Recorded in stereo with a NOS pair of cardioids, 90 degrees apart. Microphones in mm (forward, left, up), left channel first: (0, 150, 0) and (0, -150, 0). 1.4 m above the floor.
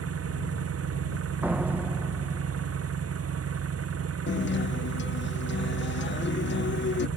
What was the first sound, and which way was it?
An engine running, 50° right.